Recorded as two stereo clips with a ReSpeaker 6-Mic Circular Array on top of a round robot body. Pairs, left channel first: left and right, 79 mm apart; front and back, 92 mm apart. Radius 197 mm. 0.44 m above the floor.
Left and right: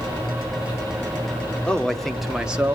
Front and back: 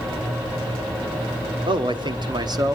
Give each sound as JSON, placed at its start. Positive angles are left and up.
{"t": 1.7, "sound": "a man speaking", "azimuth_deg": 165, "distance_m": 2.0}